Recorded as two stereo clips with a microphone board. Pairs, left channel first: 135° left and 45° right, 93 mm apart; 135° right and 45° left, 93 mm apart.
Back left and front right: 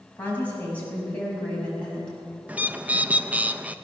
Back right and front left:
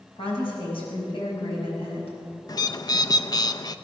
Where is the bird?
115° right, 0.5 m.